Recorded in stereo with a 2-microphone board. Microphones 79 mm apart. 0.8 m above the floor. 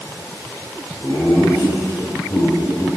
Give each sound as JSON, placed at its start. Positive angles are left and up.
{"t": 1.0, "sound": "laughter", "side_deg": 50, "distance_m": 3.0}